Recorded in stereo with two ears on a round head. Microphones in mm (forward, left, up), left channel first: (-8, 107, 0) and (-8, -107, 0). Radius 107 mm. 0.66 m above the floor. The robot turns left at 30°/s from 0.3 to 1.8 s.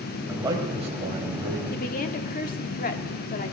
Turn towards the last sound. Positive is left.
turn(degrees=35)  # may be behind; listen again after turning